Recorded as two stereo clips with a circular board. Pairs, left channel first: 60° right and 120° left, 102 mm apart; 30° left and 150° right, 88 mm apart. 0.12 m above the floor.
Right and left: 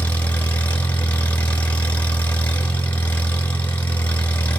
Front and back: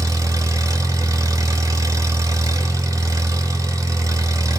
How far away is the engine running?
About 0.9 m.